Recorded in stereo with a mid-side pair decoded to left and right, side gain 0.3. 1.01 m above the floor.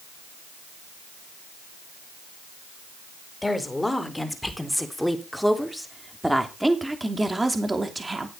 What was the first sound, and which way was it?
A woman speaking, 20° left.